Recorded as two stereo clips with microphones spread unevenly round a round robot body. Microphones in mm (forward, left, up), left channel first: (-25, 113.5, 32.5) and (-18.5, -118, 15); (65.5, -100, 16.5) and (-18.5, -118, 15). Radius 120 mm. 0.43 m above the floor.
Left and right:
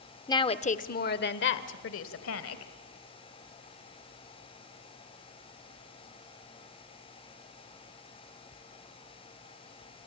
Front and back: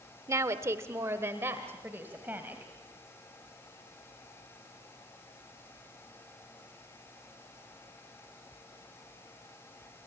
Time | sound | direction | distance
0.3 | a woman speaking | 165° left | 0.9 m